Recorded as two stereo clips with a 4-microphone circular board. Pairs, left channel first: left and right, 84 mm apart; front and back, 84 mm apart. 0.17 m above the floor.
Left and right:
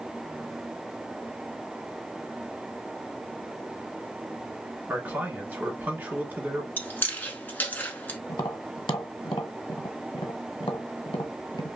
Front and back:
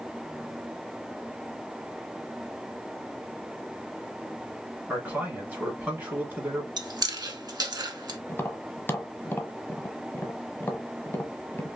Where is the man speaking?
135° right, 1.2 m.